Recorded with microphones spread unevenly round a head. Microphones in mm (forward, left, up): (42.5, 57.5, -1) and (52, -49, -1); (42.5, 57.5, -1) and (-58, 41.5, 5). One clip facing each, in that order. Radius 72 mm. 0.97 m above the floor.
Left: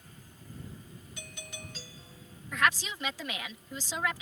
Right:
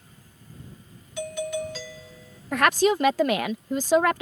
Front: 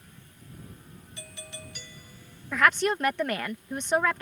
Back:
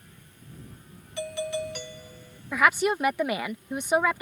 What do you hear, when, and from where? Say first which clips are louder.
1.2 s a doorbell: right 21 dB, back 17 dB; 120° right
2.5 s a woman speaking: right 10 dB, back 1 dB; 85° right